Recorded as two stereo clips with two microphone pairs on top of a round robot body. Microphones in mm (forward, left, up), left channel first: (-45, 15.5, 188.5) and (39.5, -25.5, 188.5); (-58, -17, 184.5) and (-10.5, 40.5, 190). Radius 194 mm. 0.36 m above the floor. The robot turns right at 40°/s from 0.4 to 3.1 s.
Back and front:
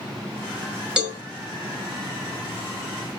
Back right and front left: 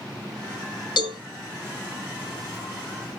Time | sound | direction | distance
1.0 | a cowbell | 110° right | 0.9 m